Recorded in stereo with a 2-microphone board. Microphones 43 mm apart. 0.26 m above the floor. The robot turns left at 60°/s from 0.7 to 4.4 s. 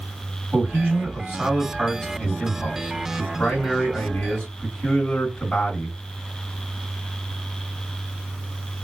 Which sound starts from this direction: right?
A man speaking, at 0.5 s.